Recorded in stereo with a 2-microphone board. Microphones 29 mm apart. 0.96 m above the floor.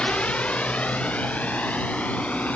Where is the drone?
40° left (ahead or behind); by 2.6 s 55° left (ahead or behind).